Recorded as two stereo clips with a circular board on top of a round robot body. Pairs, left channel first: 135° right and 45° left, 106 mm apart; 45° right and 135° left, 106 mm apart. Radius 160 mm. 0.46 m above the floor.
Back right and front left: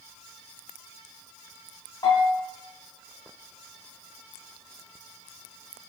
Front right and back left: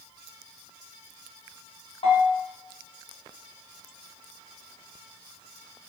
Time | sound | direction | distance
2.0 | a bell | 80° right | 1.5 m